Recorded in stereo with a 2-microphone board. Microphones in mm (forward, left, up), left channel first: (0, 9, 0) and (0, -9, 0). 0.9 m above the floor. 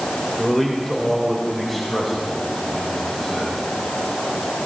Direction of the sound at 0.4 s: Centre (ahead or behind).